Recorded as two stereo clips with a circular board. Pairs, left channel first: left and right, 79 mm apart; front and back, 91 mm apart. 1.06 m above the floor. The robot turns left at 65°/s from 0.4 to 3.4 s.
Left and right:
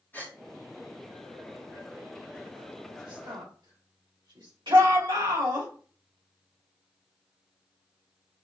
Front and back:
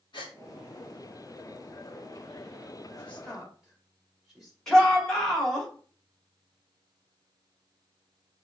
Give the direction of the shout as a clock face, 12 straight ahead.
3 o'clock.